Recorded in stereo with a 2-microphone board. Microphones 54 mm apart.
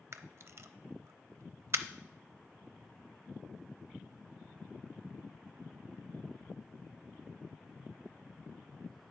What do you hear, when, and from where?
0.1 s a camera shutter: 55° right (ahead or behind), 0.5 m